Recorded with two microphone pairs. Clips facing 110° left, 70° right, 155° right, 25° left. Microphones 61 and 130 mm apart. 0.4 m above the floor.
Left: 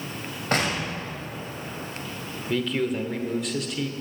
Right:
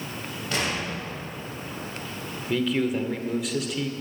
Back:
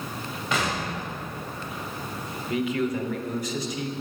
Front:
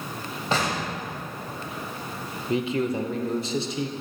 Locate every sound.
0.5 s an explosion: 75° left, 2 m
2.5 s a man speaking: 15° left, 0.8 m